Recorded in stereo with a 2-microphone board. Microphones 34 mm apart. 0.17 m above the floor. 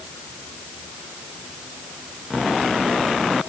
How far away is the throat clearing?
I don't hear throat clearing.